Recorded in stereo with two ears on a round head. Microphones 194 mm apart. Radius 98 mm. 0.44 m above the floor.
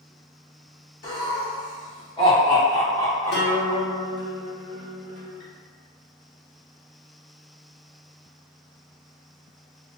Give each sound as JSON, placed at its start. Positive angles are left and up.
{"t": 1.0, "sound": "laughter", "side_deg": 45, "distance_m": 1.1}
{"t": 3.3, "sound": "a guitar", "side_deg": 50, "distance_m": 1.0}